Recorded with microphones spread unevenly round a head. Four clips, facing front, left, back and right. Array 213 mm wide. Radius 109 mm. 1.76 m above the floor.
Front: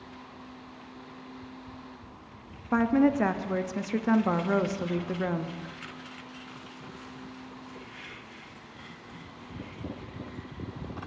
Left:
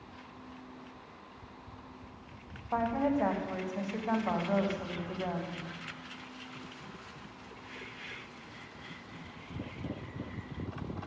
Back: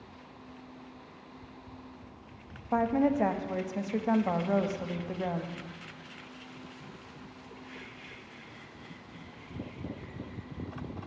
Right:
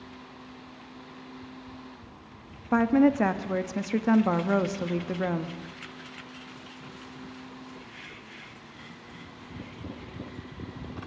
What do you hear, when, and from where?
2.7 s a woman speaking: 70° right, 0.8 m